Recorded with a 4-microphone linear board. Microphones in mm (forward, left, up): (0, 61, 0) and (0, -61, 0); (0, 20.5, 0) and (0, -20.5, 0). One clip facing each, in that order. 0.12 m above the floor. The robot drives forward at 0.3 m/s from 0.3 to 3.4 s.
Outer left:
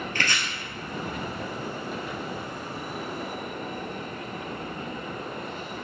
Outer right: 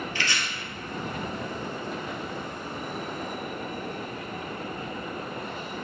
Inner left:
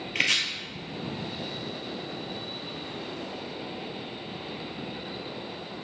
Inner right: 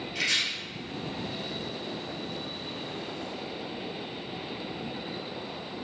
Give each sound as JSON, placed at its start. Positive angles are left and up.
{"t": 0.1, "sound": "chopping", "side_deg": 55, "distance_m": 1.7}